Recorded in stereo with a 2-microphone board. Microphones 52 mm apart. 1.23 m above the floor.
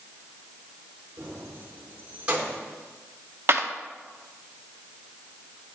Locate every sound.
1.2 s keys jangling: 50° right (ahead or behind), 3 m; by 2.6 s 20° right (ahead or behind), 3 m
3.5 s a clap: 50° right (ahead or behind), 0.8 m